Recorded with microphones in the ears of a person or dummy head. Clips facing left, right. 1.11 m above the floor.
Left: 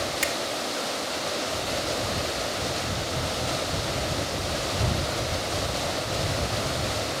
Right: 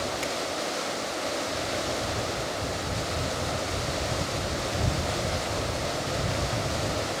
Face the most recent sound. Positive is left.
turn(degrees=30)  # may be behind; listen again after turning